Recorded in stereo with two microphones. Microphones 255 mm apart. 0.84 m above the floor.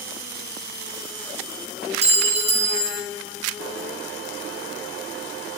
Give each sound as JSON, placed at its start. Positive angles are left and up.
{"t": 2.0, "sound": "a clink", "side_deg": -25, "distance_m": 0.7}